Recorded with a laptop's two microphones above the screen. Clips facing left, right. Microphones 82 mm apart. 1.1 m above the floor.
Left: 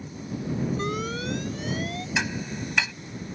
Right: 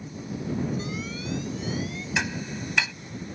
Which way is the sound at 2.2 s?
Centre (ahead or behind).